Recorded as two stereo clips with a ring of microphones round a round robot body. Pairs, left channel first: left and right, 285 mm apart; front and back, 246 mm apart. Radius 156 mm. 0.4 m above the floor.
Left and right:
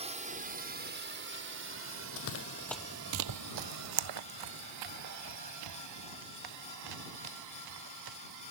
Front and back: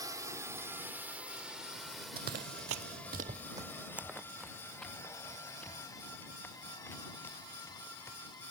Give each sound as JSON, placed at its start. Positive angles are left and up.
{"t": 0.0, "sound": "a drone", "azimuth_deg": -125}
{"t": 2.2, "sound": "running footsteps", "azimuth_deg": 125}